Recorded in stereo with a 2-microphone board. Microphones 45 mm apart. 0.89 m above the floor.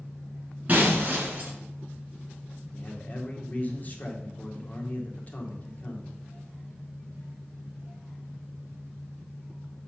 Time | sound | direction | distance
0.7 | breaking glass | 35° right (ahead or behind) | 3 m
2.7 | a man speaking | 40° left (ahead or behind) | 1.8 m